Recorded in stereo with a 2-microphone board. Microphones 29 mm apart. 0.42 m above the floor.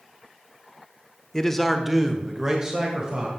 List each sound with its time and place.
1.3 s a man speaking: 25° left (ahead or behind), 0.8 m; by 3.3 s 25° right (ahead or behind), 1.9 m